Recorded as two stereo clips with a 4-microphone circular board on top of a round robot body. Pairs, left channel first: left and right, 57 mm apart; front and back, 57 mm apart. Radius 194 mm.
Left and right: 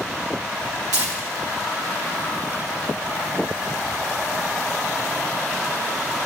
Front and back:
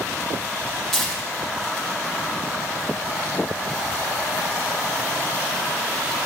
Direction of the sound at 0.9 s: 80° right.